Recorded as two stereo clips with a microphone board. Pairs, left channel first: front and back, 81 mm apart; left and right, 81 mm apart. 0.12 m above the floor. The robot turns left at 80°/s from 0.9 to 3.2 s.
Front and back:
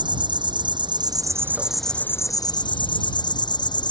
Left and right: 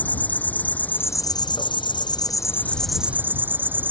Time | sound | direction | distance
0.0 | an insect | 160° left | ?